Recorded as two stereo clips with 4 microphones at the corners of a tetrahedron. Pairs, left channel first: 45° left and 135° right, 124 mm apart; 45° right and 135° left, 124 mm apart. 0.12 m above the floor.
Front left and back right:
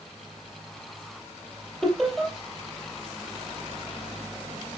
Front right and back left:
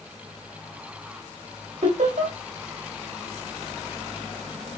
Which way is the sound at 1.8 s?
130° left.